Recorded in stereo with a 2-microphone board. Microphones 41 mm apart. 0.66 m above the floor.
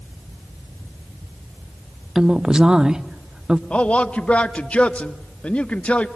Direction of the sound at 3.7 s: 30° left (ahead or behind).